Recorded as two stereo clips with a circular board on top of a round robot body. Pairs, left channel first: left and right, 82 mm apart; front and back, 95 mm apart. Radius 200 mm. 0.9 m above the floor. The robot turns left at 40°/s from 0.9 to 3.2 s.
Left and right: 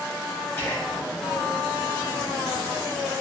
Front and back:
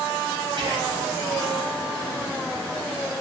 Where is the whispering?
145° left, 5 m; by 1.0 s 140° left, 5 m.